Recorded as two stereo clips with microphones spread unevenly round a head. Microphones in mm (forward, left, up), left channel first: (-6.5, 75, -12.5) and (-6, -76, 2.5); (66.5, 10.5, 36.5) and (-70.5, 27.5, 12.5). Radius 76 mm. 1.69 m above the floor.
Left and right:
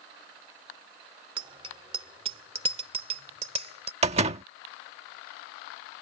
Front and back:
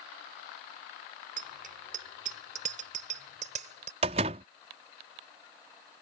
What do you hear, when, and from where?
1.4 s a bicycle bell: 145° right; by 3.9 s 140° right
4.0 s a door slam: 130° right